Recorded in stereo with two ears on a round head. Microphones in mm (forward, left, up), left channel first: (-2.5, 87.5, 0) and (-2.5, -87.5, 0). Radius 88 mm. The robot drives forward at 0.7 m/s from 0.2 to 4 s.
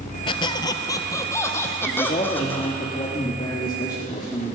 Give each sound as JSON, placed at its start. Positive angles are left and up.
{"t": 0.3, "sound": "a squeak", "side_deg": 25, "distance_m": 0.8}
{"t": 1.9, "sound": "a man speaking", "side_deg": 30, "distance_m": 1.3}